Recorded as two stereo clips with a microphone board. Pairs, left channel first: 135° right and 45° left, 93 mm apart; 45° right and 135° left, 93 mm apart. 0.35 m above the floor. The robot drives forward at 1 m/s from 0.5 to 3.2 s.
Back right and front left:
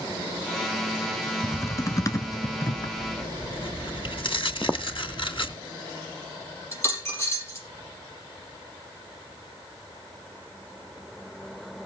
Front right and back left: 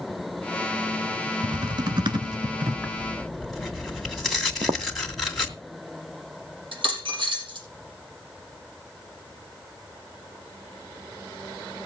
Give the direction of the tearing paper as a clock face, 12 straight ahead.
4 o'clock.